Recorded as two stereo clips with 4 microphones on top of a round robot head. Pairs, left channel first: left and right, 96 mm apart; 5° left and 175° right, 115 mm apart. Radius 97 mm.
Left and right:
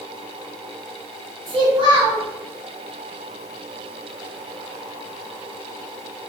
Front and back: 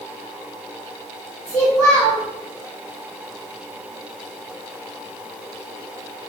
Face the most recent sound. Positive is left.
turn(degrees=-60)